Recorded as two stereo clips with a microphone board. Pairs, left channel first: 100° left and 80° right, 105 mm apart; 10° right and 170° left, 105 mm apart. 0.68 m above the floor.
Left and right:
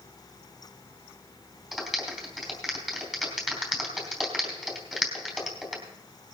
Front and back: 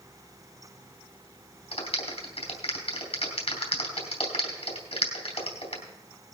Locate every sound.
1.7 s a clap: 5° left, 3.5 m